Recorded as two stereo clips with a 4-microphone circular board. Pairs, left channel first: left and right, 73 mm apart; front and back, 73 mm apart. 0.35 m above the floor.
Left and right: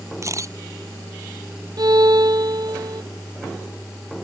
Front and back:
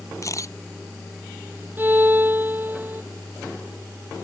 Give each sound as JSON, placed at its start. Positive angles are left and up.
{"t": 0.2, "sound": "a camera shutter", "azimuth_deg": -45}
{"t": 1.8, "sound": "a violin", "azimuth_deg": -115}